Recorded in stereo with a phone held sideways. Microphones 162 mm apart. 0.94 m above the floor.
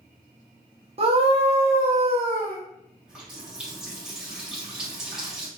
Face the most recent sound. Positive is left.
turn(degrees=-5)  # may be behind; listen again after turning